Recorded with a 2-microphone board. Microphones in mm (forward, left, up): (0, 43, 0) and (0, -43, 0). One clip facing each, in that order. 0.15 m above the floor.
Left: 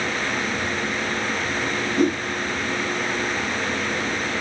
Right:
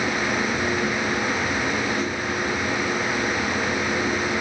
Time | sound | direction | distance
2.0 | a whoosh | 55° left (ahead or behind) | 0.8 m